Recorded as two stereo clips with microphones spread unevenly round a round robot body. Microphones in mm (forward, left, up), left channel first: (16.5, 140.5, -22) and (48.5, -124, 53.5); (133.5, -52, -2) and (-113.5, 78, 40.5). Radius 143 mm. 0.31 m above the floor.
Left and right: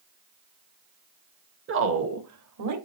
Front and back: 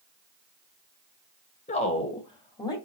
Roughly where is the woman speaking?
Ahead right.